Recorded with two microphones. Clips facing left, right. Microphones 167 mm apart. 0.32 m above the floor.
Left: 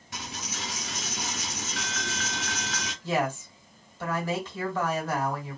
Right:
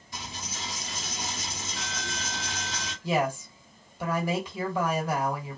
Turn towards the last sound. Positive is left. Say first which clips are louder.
# right 1 dB
turn(degrees=-10)  # may be behind; listen again after turning